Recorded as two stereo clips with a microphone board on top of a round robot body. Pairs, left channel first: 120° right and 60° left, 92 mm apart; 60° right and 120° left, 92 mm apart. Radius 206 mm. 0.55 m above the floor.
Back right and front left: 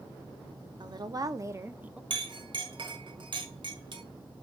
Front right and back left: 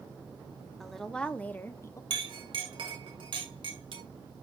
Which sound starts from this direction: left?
A clink, at 2.1 s.